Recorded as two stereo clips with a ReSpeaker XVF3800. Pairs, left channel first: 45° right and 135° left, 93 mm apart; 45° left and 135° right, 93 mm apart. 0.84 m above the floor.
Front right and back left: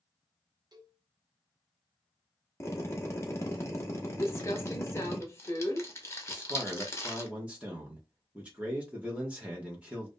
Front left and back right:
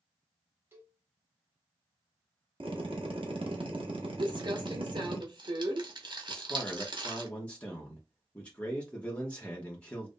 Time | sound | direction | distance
0.7 | a cowbell | 165° left | 0.9 m
2.6 | a drill | 105° right | 0.8 m
4.2 | crumpling | 105° right | 0.8 m
6.3 | a man speaking | 90° left | 1.0 m